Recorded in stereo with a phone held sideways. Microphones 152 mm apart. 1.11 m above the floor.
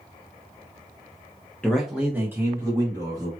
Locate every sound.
1.6 s a man speaking: 10° left (ahead or behind), 0.7 m; by 3.3 s 25° right (ahead or behind), 2.5 m